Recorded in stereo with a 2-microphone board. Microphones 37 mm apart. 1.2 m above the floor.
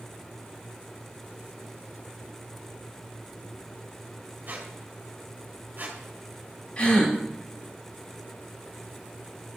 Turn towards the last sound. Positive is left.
turn(degrees=30)  # may be behind; listen again after turning